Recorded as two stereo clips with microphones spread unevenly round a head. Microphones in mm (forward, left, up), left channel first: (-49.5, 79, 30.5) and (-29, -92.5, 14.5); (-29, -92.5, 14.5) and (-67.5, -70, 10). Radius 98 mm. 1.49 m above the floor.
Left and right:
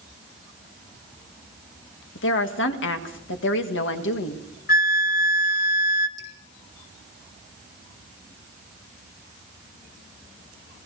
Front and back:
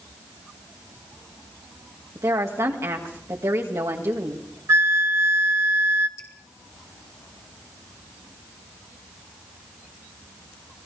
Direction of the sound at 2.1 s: 105° left.